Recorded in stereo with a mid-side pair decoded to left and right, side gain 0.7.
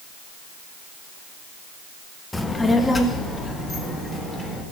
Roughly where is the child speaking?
Ahead.